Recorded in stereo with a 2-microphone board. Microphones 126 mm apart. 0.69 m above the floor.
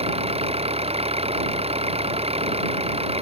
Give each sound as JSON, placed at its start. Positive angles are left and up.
{"t": 0.0, "sound": "an engine running", "side_deg": -50}